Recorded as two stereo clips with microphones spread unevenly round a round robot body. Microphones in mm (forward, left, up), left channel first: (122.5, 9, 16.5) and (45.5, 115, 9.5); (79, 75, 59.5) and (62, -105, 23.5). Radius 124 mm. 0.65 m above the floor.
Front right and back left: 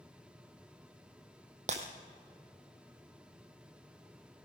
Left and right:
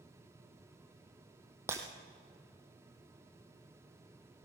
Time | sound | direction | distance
1.7 | breaking glass | straight behind | 1.3 m